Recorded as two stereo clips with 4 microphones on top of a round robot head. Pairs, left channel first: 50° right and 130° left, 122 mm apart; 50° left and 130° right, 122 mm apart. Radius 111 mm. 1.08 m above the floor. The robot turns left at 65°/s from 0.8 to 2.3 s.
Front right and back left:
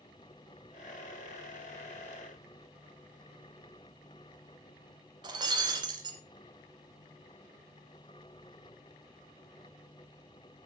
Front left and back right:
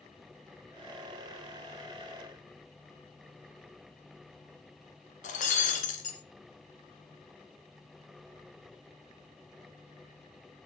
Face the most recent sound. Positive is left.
turn(degrees=75)